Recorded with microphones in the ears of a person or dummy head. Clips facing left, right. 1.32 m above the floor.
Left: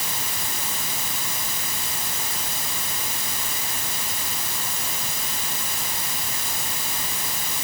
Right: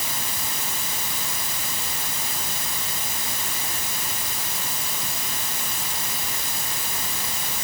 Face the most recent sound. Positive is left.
No sound to turn to.